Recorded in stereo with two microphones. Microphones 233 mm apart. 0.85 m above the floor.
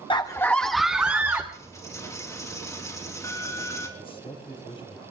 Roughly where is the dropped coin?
Centre.